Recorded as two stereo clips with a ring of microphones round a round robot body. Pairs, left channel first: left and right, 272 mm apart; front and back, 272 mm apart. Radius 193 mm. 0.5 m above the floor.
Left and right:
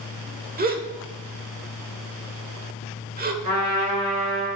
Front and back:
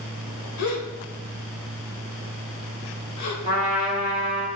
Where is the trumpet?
105° right, 3 m.